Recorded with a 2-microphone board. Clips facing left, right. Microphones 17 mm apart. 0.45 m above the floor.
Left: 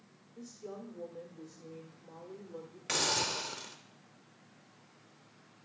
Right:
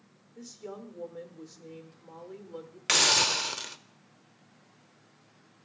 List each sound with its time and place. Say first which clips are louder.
0.3 s a woman speaking: right 3 dB; 35° right (ahead or behind), 1.3 m
2.9 s a hiss: right 9 dB; 45° right (ahead or behind), 0.6 m